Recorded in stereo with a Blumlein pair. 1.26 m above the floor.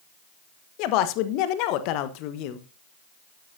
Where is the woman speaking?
40° left, 1.1 m.